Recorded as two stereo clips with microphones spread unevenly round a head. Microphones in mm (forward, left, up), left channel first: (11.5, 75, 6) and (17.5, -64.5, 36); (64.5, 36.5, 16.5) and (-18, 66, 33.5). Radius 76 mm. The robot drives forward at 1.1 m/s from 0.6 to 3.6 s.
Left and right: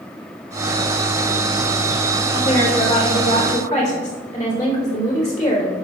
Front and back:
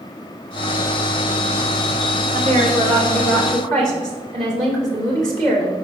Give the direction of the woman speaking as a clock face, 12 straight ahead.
7 o'clock.